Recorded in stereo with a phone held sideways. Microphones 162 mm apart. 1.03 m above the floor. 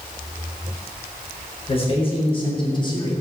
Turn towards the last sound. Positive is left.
turn(degrees=25)  # may be behind; listen again after turning